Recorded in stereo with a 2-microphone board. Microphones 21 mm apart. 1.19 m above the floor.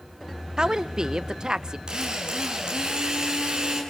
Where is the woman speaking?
40° right (ahead or behind), 0.8 m.